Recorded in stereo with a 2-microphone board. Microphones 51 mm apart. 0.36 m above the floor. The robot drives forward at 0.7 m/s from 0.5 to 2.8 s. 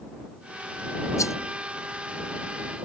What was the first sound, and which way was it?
A rattle, 80° left.